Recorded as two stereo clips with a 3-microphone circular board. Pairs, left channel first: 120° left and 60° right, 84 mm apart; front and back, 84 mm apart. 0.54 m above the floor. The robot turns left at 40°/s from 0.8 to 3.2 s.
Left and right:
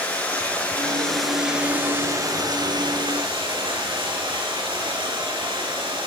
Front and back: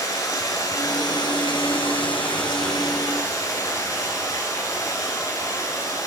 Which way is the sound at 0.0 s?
45° left.